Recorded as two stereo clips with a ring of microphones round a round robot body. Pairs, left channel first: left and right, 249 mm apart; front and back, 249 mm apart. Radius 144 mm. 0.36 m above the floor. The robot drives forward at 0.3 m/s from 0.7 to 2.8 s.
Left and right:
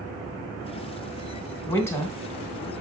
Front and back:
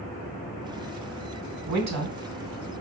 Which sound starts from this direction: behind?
A woman speaking, at 1.7 s.